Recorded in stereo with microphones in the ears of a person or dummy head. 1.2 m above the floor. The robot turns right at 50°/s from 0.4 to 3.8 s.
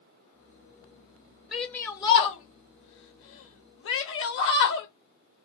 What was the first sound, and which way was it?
A shout, centre (ahead or behind).